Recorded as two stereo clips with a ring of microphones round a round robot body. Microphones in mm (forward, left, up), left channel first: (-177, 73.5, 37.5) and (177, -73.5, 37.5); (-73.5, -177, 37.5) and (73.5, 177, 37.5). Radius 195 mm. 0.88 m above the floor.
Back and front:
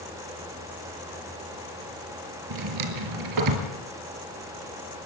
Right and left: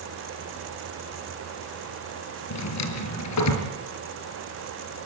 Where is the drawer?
65° right, 4.5 m.